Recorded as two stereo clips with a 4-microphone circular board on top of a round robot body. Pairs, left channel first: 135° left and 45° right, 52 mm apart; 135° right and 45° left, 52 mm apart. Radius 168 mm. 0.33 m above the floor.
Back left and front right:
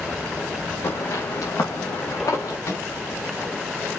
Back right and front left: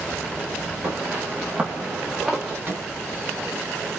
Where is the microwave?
95° left, 3.5 m.